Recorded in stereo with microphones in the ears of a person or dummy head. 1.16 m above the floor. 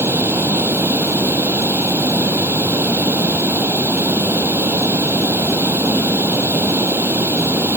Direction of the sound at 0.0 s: 10° right (ahead or behind).